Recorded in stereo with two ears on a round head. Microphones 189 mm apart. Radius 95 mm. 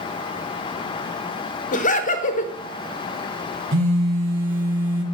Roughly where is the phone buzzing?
Right.